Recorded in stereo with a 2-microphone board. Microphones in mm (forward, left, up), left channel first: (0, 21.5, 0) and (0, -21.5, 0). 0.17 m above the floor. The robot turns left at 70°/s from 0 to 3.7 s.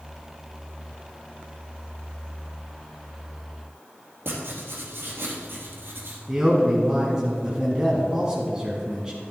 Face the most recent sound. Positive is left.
turn(degrees=-20)  # may be behind; listen again after turning